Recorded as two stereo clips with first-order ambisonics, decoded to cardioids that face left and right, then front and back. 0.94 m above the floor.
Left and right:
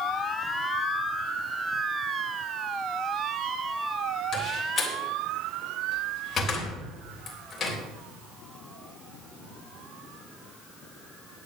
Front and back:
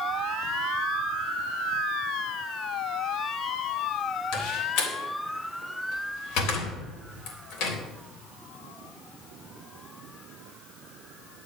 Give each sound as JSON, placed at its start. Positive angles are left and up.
{"t": 4.3, "sound": "a door slam", "azimuth_deg": 20, "distance_m": 3.5}